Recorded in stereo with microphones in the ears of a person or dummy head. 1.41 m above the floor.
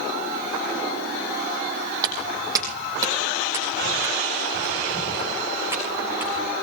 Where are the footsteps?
25° right (ahead or behind), 3.5 m; by 6.5 s 15° right (ahead or behind), 6 m.